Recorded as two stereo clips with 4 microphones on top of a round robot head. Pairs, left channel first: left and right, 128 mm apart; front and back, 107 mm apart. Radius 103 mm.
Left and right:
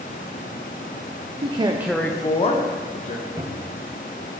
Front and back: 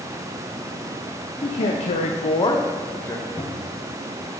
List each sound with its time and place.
1.4 s a man speaking: 45° right, 0.9 m; by 3.3 s 70° left, 1.9 m
3.4 s a cupboard door: 35° right, 0.9 m